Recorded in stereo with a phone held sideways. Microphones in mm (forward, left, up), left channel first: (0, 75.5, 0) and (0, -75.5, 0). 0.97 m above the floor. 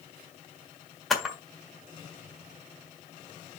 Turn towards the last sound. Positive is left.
turn(degrees=0)  # may be behind; listen again after turning